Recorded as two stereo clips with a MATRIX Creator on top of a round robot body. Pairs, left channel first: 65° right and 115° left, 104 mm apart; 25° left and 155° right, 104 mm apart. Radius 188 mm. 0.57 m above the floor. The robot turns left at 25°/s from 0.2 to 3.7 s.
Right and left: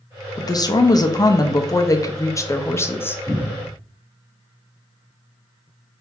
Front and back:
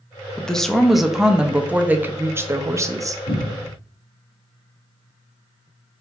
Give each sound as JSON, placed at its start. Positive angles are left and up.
{"t": 0.4, "sound": "a woman speaking", "azimuth_deg": -55, "distance_m": 0.7}
{"t": 3.3, "sound": "a cupboard door", "azimuth_deg": -20, "distance_m": 2.0}